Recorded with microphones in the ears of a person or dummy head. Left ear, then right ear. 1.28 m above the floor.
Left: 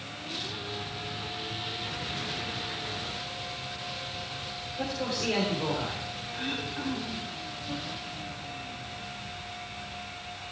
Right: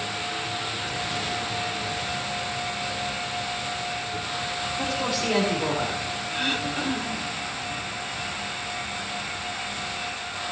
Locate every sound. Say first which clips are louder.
4.8 s a man speaking: right 3 dB; 10° left (ahead or behind), 4 m
6.3 s throat clearing: right 8 dB; 20° right (ahead or behind), 0.8 m